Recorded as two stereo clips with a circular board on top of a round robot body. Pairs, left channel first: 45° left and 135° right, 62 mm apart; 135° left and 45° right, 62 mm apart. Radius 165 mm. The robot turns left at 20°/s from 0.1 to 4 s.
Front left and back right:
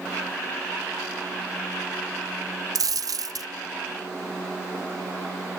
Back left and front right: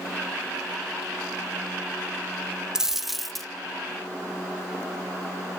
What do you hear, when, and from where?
2.8 s a dropped coin: 125° right, 0.7 m; by 3.5 s 140° right, 0.7 m